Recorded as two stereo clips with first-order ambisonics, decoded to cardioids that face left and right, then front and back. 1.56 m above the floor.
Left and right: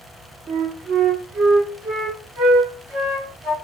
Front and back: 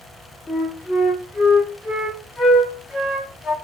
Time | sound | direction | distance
0.5 | a flute | 65° right | 1.6 m